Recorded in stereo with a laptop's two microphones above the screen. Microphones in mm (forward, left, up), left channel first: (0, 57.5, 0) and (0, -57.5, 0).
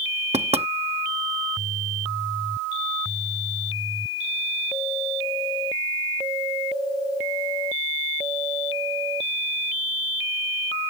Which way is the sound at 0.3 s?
65° right (ahead or behind).